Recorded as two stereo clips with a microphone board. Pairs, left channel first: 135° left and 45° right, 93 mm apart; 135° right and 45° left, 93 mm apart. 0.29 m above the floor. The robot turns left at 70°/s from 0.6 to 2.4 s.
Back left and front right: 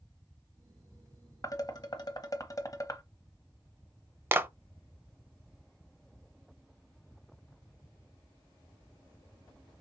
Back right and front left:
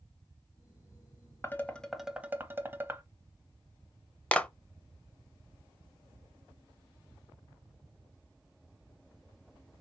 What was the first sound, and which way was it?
Dishes clattering, 170° left.